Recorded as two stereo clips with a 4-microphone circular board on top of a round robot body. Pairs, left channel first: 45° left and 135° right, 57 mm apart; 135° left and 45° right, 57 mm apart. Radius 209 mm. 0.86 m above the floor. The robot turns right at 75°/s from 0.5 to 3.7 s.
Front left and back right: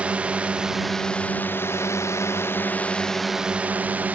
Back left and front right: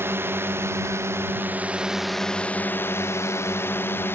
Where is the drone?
70° right; by 4.2 s 170° left.